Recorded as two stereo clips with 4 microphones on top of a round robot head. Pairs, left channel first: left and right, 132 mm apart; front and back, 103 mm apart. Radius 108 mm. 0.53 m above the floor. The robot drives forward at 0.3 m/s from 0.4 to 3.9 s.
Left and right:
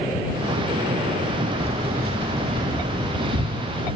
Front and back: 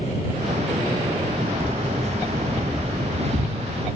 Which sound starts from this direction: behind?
Keys jangling, at 1.6 s.